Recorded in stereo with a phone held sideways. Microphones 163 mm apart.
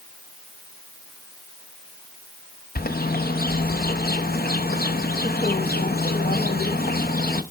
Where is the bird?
70° left (ahead or behind), 0.8 m.